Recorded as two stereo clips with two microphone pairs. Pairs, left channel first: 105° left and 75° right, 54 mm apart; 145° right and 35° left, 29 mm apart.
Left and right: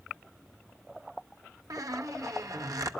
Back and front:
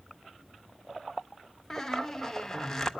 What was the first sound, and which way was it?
A squeak, 70° right.